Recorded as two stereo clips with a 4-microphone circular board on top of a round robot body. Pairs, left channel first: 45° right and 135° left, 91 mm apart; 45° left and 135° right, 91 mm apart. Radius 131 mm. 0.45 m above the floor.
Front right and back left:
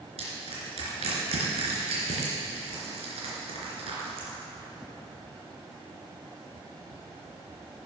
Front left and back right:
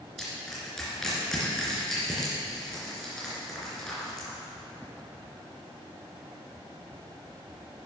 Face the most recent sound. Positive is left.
turn(degrees=130)